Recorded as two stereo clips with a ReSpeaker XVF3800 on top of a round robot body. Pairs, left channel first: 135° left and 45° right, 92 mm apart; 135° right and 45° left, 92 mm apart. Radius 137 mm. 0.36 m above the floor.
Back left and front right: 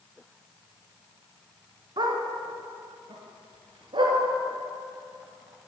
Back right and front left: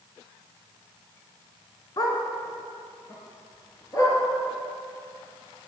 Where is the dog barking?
85° right, 1.7 m; by 4.2 s 80° right, 3 m.